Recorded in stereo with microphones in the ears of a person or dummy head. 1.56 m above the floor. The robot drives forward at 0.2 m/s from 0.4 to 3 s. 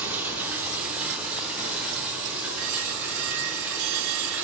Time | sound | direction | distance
0.0 | running water | 5° right (ahead or behind) | 0.7 m